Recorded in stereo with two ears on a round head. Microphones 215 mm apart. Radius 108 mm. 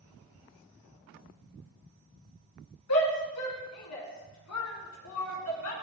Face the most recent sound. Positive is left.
turn(degrees=60)  # may be behind; listen again after turning